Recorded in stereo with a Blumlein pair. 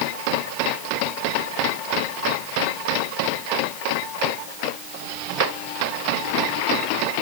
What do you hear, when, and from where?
Only background noise.